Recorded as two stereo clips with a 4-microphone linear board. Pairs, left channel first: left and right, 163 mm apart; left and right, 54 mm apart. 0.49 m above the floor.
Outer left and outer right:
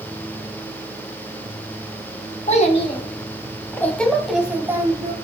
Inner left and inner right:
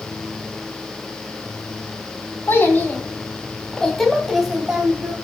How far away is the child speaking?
About 2 m.